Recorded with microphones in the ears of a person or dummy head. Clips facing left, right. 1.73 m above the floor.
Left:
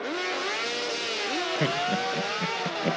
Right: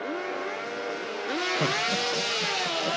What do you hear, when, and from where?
1.6 s laughter: 10° left (ahead or behind), 1.5 m; by 3.0 s 40° left (ahead or behind), 1.4 m